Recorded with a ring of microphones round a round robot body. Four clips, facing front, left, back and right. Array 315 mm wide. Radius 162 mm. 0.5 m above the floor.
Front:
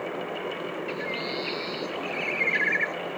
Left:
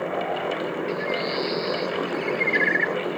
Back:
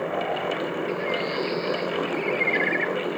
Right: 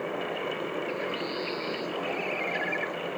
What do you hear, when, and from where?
0.9 s a bird: 55° left